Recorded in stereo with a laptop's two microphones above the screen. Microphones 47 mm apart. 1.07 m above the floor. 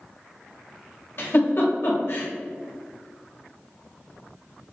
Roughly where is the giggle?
Left.